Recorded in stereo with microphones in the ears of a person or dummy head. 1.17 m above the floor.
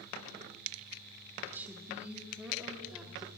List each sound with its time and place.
1.5 s a woman speaking: 10° right (ahead or behind), 2.5 m; by 3.3 s centre (ahead or behind), 3.5 m